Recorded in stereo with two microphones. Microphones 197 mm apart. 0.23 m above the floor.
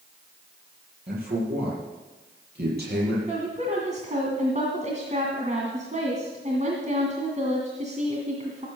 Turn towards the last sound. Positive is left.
turn(degrees=-40)  # may be behind; listen again after turning